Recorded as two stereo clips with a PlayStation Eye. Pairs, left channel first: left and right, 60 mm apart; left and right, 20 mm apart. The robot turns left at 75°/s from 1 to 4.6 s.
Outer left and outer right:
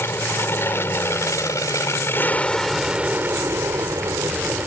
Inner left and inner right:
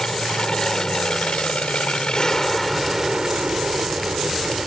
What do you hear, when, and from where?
0.0 s an aircraft: 130° left; by 4.7 s 140° right